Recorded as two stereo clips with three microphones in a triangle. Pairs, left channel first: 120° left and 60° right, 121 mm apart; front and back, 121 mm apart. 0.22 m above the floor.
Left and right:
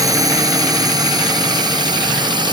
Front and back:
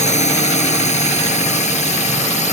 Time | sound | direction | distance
0.0 | a drone | straight ahead | ?